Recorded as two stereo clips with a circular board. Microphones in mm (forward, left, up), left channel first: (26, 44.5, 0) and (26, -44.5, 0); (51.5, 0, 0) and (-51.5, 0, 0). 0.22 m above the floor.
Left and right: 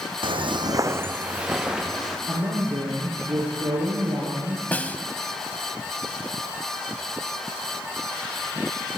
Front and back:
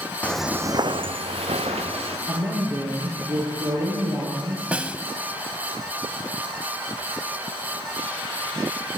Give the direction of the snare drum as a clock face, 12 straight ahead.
8 o'clock.